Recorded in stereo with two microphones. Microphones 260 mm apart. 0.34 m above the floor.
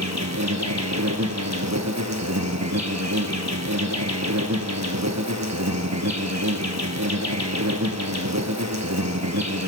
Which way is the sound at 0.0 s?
85° right.